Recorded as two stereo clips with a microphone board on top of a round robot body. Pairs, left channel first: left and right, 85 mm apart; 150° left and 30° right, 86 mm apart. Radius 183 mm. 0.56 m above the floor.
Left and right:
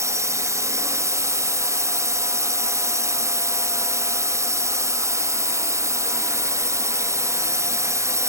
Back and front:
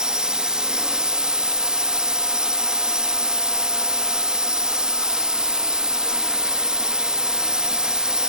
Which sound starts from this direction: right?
A drone, at 0.0 s.